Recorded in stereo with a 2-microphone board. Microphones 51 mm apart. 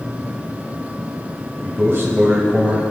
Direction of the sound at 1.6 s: 55° right (ahead or behind).